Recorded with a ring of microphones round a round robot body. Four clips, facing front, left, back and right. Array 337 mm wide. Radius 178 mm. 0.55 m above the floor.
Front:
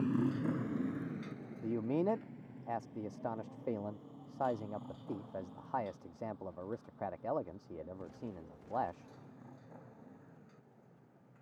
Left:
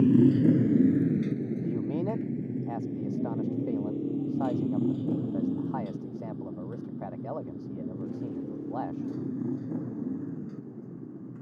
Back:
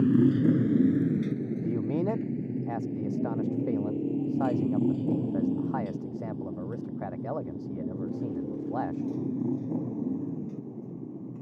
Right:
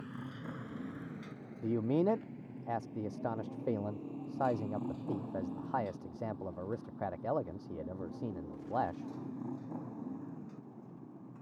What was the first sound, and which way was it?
A motorcycle, 120° left.